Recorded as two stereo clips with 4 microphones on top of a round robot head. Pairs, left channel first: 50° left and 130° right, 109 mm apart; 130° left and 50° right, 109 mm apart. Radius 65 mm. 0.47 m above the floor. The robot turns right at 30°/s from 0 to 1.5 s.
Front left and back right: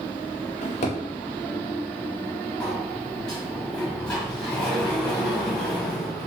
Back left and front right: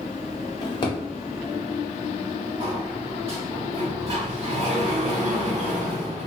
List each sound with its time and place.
0.6 s a drawer: 75° left, 0.7 m; by 1.0 s 85° left, 0.7 m
2.6 s a sliding door: 30° right, 1.1 m